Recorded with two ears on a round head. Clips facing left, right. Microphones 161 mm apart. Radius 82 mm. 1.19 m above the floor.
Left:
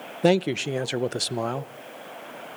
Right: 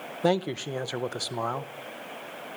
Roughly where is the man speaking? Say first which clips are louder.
Left 5 dB; left.